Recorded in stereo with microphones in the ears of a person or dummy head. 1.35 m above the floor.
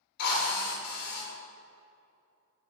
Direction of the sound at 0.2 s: 55° left (ahead or behind).